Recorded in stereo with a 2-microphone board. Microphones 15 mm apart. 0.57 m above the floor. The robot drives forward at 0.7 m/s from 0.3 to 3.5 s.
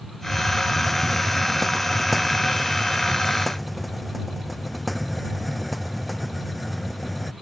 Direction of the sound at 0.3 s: 15° left (ahead or behind).